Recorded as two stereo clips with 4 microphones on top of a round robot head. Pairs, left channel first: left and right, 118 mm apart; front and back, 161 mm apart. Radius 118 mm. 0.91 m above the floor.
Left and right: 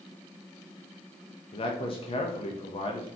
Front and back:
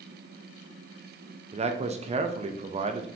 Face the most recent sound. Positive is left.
turn(degrees=130)